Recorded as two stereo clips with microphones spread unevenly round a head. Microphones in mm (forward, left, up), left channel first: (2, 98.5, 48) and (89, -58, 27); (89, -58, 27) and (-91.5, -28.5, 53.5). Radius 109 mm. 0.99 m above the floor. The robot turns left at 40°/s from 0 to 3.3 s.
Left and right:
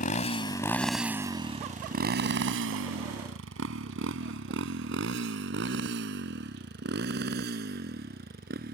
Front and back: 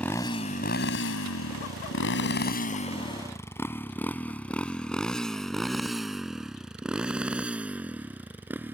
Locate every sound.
0.0 s a motorcycle: 80° left; by 8.8 s 110° right